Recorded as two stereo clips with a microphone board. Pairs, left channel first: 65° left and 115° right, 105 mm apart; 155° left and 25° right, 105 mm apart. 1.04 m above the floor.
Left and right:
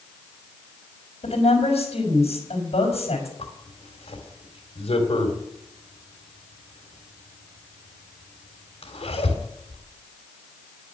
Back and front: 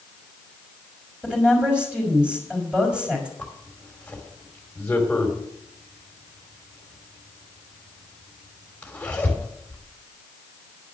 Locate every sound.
1.2 s a woman speaking: 60° left, 4.5 m
3.4 s a zipper: 80° left, 3 m